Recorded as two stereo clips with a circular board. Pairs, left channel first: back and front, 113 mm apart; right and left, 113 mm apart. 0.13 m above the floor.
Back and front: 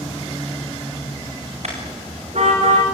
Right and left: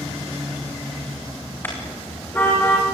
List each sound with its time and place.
1.6 s a car horn: 20° right, 7 m; by 2.8 s 15° right, 6 m